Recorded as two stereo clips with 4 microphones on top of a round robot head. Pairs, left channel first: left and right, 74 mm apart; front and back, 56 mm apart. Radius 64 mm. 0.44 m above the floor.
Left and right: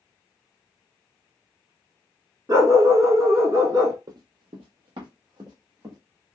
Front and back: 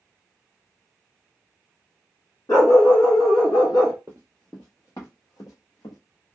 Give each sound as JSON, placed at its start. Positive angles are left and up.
{"t": 2.5, "sound": "a dog barking", "azimuth_deg": -40, "distance_m": 1.7}
{"t": 4.1, "sound": "running footsteps", "azimuth_deg": -120, "distance_m": 0.7}